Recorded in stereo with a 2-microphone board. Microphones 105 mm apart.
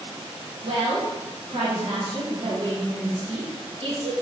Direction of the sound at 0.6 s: 60° right (ahead or behind).